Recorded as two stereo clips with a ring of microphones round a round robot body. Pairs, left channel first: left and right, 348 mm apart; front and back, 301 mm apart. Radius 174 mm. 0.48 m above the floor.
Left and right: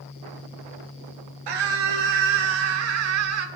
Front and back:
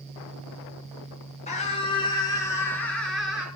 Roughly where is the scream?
Right.